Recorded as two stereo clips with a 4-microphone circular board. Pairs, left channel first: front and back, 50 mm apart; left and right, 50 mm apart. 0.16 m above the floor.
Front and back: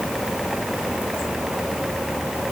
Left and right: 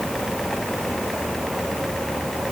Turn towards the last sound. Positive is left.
No sound to turn to.